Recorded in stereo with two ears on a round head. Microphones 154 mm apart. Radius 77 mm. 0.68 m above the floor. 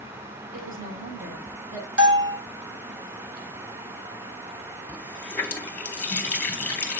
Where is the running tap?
10° left (ahead or behind), 1.3 m.